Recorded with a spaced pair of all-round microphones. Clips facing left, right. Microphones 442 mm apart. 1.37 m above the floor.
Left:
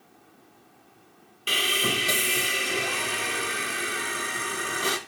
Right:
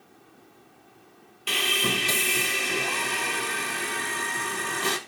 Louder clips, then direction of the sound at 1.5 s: Even; 5° right (ahead or behind).